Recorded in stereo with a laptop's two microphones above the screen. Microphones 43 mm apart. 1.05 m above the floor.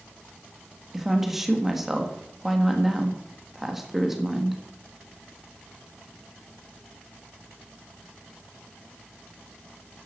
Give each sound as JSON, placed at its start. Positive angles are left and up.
{"t": 0.9, "sound": "a woman speaking", "side_deg": -5, "distance_m": 1.4}